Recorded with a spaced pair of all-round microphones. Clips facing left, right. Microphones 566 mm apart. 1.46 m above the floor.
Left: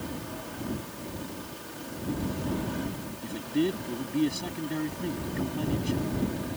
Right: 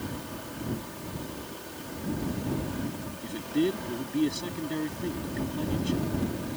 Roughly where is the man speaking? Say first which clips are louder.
Right 1 dB; centre.